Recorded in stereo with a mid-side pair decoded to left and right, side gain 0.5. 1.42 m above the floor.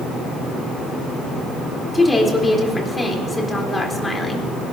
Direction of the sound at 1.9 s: 20° left.